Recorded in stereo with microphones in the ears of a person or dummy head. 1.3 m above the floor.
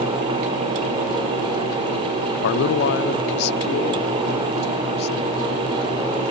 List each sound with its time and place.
2.4 s a man speaking: 65° left (ahead or behind); by 5.5 s 55° left (ahead or behind)